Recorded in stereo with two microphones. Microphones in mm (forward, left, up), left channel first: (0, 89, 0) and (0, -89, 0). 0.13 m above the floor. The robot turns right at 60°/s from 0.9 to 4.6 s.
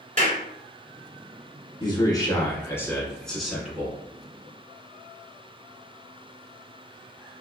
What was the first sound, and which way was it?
A clap, 40° right (ahead or behind).